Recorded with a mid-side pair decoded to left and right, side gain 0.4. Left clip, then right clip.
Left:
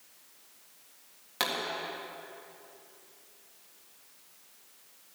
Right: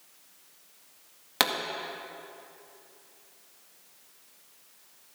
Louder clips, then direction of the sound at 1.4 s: Right 5 dB; 65° right.